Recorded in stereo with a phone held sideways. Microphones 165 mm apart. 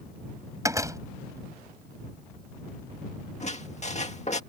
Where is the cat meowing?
I don't hear a cat meowing.